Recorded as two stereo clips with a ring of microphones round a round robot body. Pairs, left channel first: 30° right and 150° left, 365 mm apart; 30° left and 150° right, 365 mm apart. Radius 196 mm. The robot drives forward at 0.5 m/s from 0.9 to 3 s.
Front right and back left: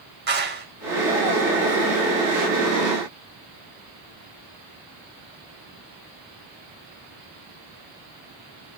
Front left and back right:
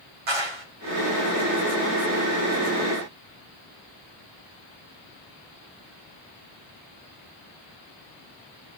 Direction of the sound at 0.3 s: 145° right.